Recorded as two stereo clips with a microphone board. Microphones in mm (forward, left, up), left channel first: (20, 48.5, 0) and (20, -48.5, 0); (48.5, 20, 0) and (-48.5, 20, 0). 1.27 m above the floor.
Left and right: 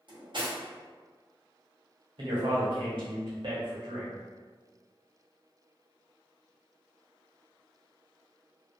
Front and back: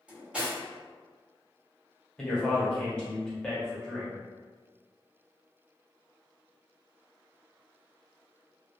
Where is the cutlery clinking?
105° right, 0.9 m.